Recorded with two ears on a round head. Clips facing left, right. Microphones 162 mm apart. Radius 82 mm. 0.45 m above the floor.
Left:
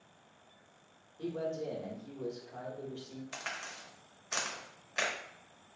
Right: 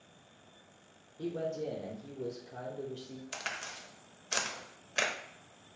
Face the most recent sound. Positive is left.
turn(degrees=-40)  # may be behind; listen again after turning